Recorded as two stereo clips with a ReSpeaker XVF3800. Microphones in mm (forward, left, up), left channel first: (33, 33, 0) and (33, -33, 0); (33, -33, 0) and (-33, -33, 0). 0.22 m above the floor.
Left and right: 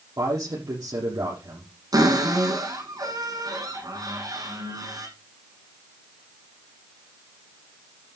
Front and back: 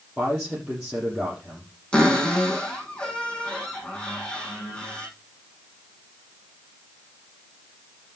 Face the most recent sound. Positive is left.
turn(degrees=-75)